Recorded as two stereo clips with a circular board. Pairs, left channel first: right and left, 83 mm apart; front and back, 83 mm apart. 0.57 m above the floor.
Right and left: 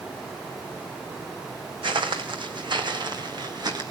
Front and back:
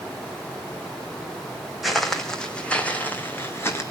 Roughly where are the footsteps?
Left.